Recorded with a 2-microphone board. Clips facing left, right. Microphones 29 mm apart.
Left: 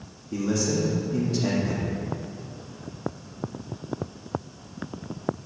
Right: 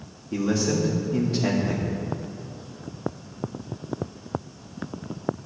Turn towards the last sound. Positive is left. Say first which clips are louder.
# right 2 dB
turn(degrees=-25)  # may be behind; listen again after turning